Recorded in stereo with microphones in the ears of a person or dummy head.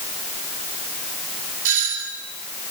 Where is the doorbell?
70° right (ahead or behind), 5.5 m.